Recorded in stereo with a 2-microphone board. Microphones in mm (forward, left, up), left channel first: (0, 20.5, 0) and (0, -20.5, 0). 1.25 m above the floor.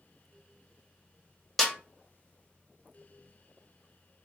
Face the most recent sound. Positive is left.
turn(degrees=5)  # may be behind; listen again after turning